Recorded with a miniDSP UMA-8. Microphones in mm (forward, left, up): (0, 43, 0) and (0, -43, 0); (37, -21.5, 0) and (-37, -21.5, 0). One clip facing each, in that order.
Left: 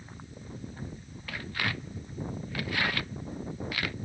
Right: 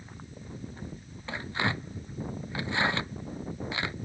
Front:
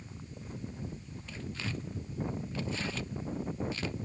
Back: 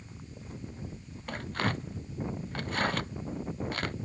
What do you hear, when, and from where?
1.3 s tearing paper: 155° right